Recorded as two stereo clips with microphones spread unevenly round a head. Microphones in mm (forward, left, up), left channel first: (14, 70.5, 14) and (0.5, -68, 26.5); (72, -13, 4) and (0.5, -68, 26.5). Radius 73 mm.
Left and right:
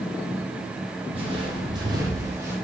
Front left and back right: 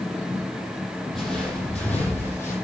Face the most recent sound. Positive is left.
turn(degrees=-25)